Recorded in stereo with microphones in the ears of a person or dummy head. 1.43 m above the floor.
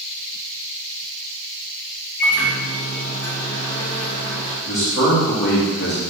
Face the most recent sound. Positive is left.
turn(degrees=60)  # may be behind; listen again after turning